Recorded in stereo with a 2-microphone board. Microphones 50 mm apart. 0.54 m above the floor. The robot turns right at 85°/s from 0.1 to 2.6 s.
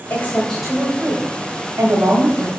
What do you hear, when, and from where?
0.1 s a woman speaking: 125° left, 2.0 m; by 2.6 s 20° right, 2.0 m